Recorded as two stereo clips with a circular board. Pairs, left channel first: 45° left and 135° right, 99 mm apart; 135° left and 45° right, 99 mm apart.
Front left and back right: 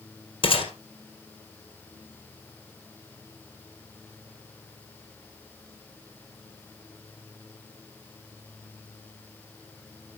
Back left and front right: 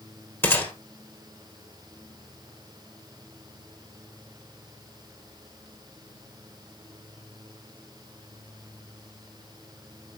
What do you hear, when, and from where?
0.4 s a gunshot: 65° left, 2.5 m